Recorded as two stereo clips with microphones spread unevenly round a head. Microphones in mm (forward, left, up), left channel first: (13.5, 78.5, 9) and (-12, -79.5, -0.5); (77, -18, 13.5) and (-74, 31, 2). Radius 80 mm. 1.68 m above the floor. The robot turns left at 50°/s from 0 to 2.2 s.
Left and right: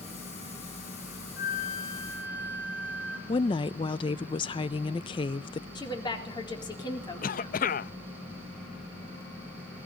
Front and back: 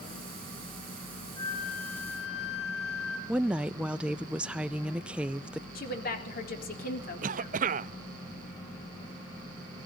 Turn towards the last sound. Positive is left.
turn(degrees=120)